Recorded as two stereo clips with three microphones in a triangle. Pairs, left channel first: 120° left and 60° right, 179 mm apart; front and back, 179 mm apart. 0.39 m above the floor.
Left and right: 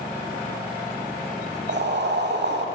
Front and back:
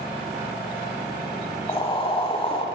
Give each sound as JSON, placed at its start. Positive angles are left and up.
{"t": 1.7, "sound": "boiling", "azimuth_deg": -55, "distance_m": 0.8}